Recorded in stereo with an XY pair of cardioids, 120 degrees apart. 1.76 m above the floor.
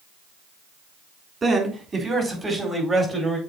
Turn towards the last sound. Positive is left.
turn(degrees=-10)